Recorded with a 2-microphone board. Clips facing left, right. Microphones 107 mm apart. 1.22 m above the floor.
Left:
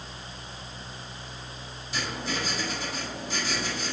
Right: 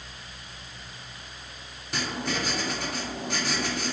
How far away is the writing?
About 3 m.